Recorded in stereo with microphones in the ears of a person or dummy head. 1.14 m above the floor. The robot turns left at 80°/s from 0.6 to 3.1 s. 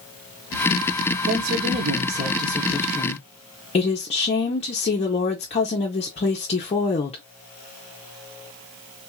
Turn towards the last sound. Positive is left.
turn(degrees=145)